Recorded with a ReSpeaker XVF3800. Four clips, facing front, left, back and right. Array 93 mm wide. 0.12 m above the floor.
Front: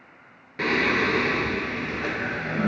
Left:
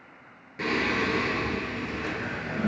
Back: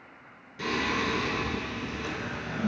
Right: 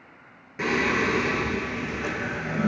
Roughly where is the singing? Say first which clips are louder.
Right 3 dB, front 6 dB; ahead.